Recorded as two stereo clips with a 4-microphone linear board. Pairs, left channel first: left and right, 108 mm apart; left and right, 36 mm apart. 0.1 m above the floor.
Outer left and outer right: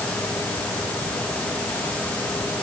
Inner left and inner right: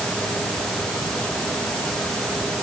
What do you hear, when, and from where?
Only background noise.